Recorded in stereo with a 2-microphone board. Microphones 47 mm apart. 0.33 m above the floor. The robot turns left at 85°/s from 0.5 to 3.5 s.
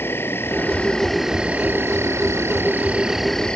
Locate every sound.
0.0 s an insect: 60° left; by 3.6 s 165° left